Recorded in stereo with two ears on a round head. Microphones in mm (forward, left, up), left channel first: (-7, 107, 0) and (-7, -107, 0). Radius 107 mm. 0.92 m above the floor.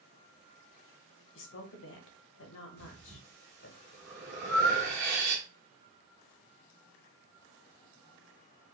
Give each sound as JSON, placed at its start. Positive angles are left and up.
{"t": 1.4, "sound": "a woman speaking", "side_deg": 55, "distance_m": 0.6}
{"t": 2.8, "sound": "breathing", "side_deg": -45, "distance_m": 0.9}